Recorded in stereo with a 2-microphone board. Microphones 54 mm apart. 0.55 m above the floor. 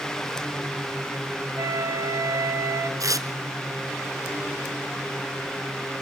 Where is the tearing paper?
75° right (ahead or behind), 1.3 m.